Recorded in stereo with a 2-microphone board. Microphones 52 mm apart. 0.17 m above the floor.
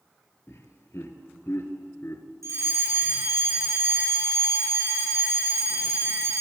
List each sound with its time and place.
0.5 s laughter: 55° left (ahead or behind), 3.5 m
2.4 s a fire alarm: 70° right (ahead or behind), 8 m